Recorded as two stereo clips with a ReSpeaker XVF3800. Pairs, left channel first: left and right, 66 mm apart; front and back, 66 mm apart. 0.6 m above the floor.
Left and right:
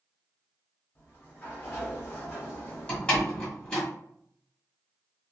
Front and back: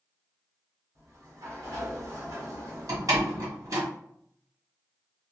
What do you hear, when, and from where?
0.9 s a sliding door: 145° left, 1.6 m
2.9 s a door slam: 160° left, 1.7 m